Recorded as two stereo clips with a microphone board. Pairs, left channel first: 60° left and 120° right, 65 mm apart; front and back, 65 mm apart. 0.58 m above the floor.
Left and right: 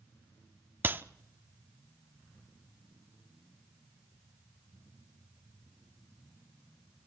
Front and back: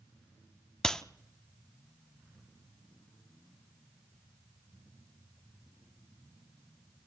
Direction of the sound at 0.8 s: 80° right.